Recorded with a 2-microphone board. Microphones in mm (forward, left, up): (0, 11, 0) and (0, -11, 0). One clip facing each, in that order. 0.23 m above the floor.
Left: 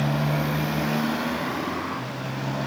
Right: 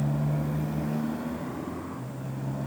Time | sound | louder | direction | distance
0.0 | a motorcycle | left 5 dB | 85° left | ?